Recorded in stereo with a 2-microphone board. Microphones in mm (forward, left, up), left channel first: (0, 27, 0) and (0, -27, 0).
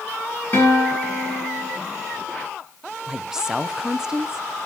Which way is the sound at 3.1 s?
10° right (ahead or behind).